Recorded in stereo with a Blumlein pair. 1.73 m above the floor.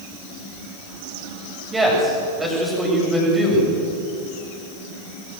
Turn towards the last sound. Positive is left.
turn(degrees=-10)